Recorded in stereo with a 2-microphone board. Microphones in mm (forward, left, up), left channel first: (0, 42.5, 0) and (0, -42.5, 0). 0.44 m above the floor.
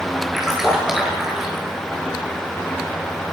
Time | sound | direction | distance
0.3 | a splash | 5° right (ahead or behind) | 7 m